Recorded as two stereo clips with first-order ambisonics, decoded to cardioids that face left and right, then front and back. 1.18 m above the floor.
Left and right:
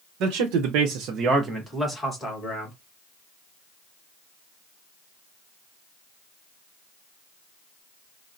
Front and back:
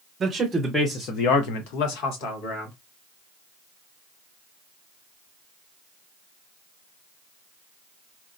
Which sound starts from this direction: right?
A man speaking, at 0.2 s.